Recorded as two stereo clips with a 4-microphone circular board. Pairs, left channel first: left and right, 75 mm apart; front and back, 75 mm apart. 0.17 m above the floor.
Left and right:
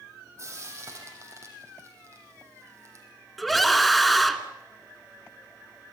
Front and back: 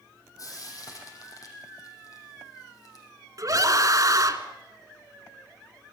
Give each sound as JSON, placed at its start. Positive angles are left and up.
{"t": 0.4, "sound": "frying", "azimuth_deg": -40, "distance_m": 5.5}
{"t": 3.4, "sound": "a scream", "azimuth_deg": 175, "distance_m": 2.0}